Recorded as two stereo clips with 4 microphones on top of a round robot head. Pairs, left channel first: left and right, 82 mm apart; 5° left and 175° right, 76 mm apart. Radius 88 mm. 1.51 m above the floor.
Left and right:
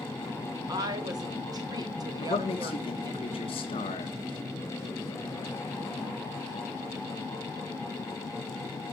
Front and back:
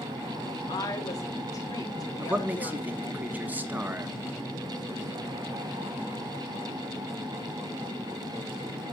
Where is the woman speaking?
50° right, 1.8 m.